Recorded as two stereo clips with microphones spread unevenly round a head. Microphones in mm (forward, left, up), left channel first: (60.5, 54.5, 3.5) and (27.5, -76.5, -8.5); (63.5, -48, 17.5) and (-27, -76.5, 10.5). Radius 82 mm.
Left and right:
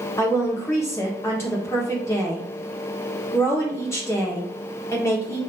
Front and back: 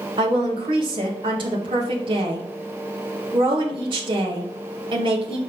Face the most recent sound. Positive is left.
turn(degrees=150)